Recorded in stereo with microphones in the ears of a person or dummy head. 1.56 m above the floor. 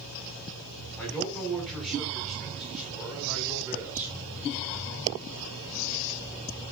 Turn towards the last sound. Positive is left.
turn(degrees=-15)  # may be behind; listen again after turning